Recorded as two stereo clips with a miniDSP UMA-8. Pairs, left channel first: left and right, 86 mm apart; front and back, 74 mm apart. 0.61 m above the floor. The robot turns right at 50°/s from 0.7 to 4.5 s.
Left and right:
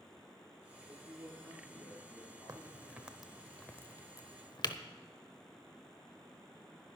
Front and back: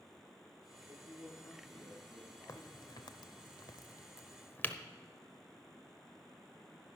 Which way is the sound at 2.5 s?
40° right.